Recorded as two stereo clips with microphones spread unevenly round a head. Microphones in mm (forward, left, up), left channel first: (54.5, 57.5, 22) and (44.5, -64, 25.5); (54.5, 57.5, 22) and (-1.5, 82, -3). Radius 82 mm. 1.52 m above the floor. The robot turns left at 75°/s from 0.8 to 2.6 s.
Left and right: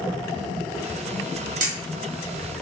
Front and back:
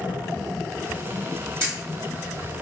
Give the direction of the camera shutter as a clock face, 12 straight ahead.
4 o'clock.